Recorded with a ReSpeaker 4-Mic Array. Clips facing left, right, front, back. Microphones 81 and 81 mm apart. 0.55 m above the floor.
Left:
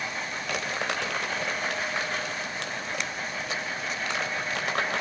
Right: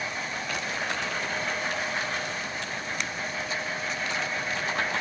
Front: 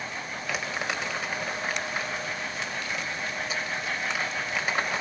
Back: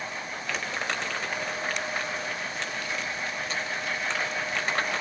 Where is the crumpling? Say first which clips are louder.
Left 3 dB, even; 85° left, 3.5 m.